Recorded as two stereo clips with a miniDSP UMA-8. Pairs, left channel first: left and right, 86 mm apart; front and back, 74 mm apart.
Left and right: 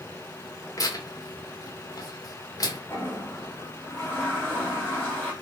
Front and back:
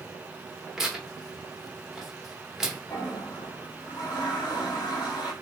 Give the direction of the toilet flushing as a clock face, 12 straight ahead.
11 o'clock.